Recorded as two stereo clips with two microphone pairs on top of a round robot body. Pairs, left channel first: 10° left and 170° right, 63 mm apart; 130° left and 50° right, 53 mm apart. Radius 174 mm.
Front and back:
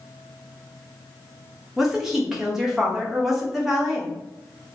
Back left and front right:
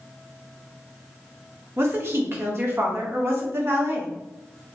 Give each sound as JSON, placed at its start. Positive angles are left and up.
{"t": 1.8, "sound": "a woman speaking", "azimuth_deg": -80, "distance_m": 1.3}